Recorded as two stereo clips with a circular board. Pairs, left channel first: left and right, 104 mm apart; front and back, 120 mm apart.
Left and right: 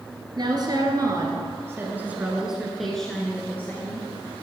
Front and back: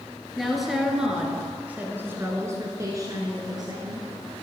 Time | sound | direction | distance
0.4 | a woman speaking | 90° right | 1.8 m